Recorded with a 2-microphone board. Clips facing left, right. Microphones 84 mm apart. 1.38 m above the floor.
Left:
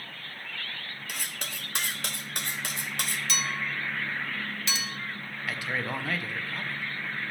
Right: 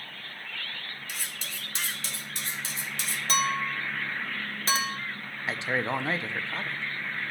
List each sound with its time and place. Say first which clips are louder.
1.1 s cutlery clinking: left 4 dB; 60° left (ahead or behind), 1.0 m
3.3 s a clink: right 9 dB; 40° right (ahead or behind), 0.8 m
5.5 s a man speaking: right 3 dB; 25° right (ahead or behind), 0.7 m